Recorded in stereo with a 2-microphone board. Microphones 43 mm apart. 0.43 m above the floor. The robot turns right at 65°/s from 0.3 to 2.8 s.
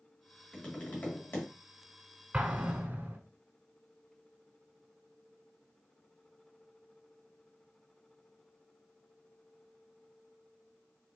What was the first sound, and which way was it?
Tapping, 25° left.